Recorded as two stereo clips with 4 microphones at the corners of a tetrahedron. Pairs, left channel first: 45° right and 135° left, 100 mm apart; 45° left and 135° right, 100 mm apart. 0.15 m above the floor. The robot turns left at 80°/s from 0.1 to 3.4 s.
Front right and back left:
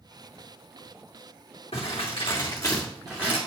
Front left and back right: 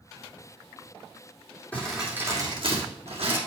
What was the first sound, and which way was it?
Crumpling, 30° right.